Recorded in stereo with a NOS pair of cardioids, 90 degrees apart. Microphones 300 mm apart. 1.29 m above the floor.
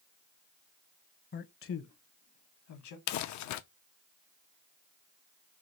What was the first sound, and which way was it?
A man speaking, 35° left.